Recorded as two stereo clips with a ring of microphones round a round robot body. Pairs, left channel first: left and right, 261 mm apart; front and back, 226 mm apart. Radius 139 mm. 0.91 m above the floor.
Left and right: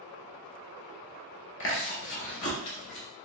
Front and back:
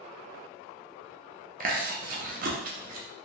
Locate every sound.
1.6 s chewing: 130° left, 0.7 m